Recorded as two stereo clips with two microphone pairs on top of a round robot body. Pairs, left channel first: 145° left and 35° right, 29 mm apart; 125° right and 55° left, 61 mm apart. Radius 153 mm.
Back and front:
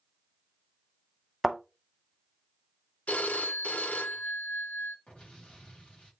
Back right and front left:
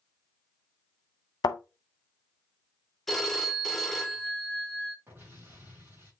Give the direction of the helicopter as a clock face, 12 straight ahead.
I don't hear a helicopter.